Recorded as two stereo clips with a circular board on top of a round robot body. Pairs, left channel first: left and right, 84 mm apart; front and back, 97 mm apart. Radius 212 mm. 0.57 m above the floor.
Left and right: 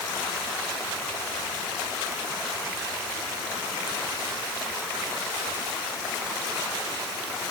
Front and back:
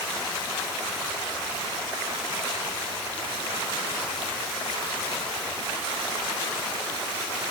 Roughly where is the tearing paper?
No tearing paper in this recording.